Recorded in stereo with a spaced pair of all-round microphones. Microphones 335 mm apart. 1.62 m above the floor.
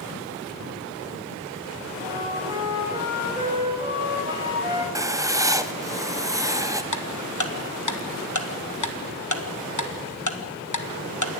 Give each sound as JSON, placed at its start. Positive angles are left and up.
{"t": 2.0, "sound": "a flute", "side_deg": -15, "distance_m": 4.5}
{"t": 5.0, "sound": "writing", "side_deg": -10, "distance_m": 0.8}
{"t": 6.9, "sound": "ticking", "side_deg": 60, "distance_m": 1.4}